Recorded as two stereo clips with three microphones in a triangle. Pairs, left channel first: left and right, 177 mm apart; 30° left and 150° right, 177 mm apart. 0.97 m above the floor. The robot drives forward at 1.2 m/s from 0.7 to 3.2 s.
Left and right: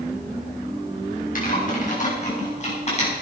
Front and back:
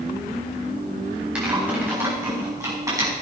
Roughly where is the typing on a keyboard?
Behind left.